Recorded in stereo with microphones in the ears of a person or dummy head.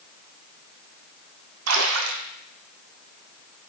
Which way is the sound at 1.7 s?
85° right.